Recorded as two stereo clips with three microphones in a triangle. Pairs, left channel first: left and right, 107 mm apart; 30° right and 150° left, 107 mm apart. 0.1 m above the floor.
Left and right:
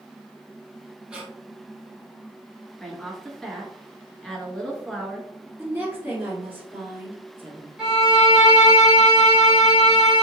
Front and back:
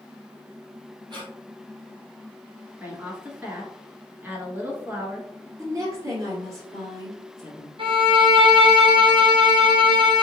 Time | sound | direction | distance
1.1 | breathing | 170° right | 1.5 m
2.8 | a woman speaking | 170° left | 1.1 m
5.6 | a woman speaking | 155° right | 1.7 m
7.8 | a violin | 175° right | 1.2 m